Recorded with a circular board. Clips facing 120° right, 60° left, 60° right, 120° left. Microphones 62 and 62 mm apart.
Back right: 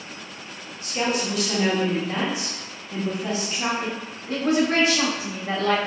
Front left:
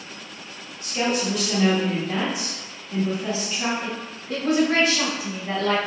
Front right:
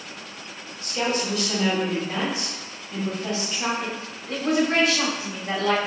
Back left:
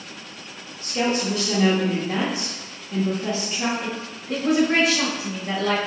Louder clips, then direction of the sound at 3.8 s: Back right 1 dB, back left 1 dB; 170° right.